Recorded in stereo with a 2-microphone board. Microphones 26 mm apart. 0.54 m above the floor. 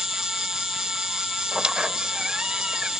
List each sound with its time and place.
0.0 s an insect: 15° right (ahead or behind)
1.5 s a squeak: 35° right (ahead or behind)